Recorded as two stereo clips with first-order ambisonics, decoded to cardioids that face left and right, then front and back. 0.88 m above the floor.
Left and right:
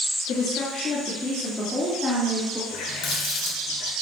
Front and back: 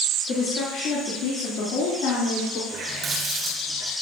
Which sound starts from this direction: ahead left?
A woman speaking, at 0.3 s.